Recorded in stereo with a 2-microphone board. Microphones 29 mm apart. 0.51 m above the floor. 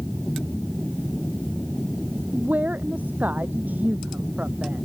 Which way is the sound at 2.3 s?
85° right.